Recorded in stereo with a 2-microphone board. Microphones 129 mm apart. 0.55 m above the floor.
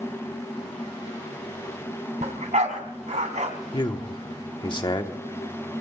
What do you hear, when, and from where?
2.2 s a dog barking: 65° right (ahead or behind), 2 m
3.7 s a man speaking: 35° left (ahead or behind), 1.2 m